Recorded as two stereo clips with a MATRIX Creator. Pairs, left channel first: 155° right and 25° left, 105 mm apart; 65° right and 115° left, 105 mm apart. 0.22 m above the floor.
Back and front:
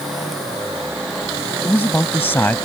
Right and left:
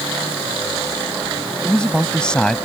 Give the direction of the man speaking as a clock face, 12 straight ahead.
4 o'clock.